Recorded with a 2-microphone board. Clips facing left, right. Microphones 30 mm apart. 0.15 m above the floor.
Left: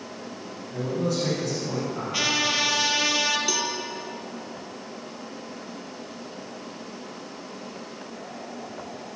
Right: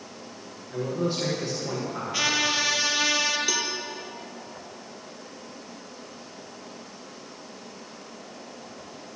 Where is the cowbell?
10° right (ahead or behind), 1.4 m.